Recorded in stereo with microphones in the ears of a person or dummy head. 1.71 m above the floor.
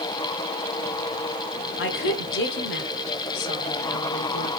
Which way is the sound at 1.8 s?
60° left (ahead or behind).